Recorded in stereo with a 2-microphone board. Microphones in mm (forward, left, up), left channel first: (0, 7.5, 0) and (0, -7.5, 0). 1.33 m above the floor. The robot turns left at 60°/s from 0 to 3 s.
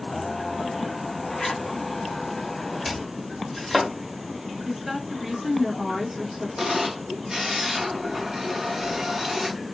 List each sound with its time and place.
1.3 s a zipper: 60° left (ahead or behind), 0.7 m; by 1.6 s 50° left (ahead or behind), 0.7 m
2.9 s chopping: 10° left (ahead or behind), 1.2 m; by 3.9 s 5° left (ahead or behind), 1.2 m
4.7 s a woman speaking: 25° right (ahead or behind), 1.0 m
6.6 s a camera shutter: 40° right (ahead or behind), 1.6 m